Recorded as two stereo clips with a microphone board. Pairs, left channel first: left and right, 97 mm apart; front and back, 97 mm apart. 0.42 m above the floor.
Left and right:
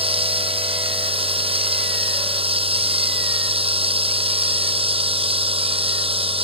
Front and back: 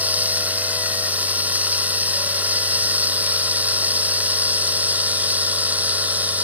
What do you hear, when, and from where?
0.0 s running water: 105° right